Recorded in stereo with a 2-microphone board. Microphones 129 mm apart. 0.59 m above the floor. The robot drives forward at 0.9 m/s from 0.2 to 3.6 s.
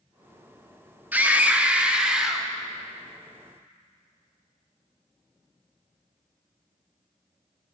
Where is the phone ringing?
I don't hear a phone ringing.